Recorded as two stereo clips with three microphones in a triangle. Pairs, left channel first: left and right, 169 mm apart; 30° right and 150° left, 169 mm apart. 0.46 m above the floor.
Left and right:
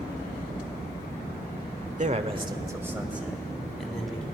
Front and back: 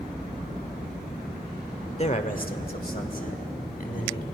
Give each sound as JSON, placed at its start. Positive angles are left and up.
{"t": 2.0, "sound": "a man speaking", "azimuth_deg": -70, "distance_m": 1.2}